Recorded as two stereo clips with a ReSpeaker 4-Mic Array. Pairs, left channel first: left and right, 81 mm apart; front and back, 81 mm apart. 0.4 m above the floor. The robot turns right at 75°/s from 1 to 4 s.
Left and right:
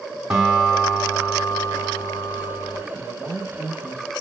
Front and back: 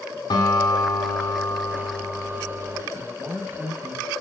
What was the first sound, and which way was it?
A guitar, 10° right.